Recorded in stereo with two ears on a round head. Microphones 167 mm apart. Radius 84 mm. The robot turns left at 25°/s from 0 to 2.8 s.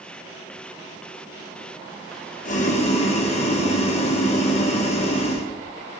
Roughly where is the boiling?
Left.